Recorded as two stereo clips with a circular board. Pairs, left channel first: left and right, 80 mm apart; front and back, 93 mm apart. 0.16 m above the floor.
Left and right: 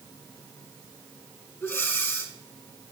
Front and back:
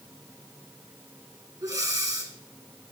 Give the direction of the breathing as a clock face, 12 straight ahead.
7 o'clock.